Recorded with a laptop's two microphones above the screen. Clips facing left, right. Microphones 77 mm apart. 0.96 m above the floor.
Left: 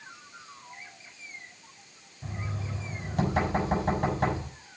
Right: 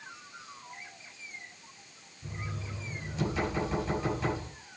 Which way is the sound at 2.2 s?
55° left (ahead or behind).